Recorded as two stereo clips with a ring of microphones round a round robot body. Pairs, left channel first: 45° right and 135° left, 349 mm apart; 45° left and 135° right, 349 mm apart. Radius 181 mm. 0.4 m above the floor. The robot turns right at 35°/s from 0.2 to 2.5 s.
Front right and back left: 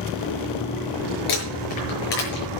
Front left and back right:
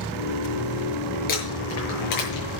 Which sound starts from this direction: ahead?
Crumpling, at 1.3 s.